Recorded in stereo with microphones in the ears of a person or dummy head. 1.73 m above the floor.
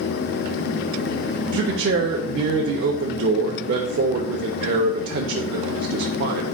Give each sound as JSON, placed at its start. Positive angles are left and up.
{"t": 1.5, "sound": "a man speaking", "side_deg": -60, "distance_m": 0.8}